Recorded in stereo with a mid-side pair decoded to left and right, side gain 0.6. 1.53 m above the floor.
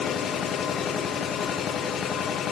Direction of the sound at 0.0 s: 45° left.